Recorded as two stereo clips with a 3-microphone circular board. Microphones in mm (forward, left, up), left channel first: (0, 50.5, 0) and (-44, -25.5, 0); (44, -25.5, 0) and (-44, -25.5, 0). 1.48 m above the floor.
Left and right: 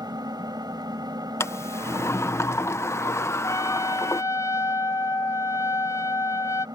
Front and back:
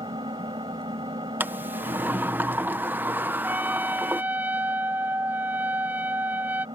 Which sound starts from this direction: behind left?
A sliding door, at 1.4 s.